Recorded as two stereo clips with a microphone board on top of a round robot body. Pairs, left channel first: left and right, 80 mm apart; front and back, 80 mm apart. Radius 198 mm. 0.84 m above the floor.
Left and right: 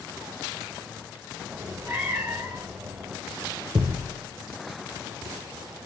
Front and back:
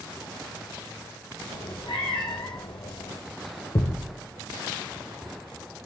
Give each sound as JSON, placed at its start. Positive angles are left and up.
{"t": 1.5, "sound": "a cat meowing", "azimuth_deg": -25, "distance_m": 1.1}
{"t": 3.8, "sound": "a thud", "azimuth_deg": -40, "distance_m": 1.1}